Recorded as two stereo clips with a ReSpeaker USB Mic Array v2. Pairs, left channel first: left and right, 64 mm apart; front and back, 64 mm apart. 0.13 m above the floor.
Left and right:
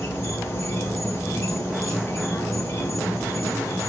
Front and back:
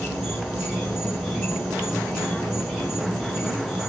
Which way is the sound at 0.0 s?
90° left.